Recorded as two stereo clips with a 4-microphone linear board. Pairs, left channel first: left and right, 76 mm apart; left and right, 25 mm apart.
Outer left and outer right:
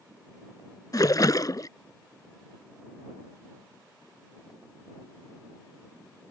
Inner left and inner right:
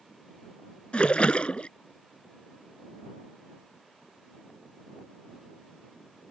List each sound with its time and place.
0.9 s a splash: 55° left (ahead or behind)